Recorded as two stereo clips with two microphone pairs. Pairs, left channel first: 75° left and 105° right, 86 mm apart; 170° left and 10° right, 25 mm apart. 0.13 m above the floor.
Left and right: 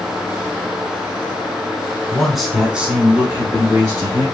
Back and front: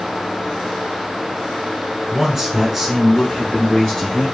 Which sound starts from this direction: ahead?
A man speaking, at 2.1 s.